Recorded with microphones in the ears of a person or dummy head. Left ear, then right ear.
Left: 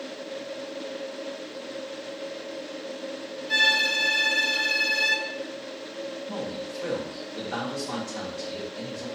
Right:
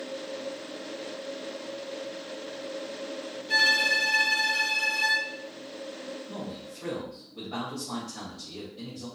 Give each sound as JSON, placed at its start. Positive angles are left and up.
{"t": 3.5, "sound": "a violin", "side_deg": 30, "distance_m": 1.2}
{"t": 6.3, "sound": "a man speaking", "side_deg": 60, "distance_m": 1.7}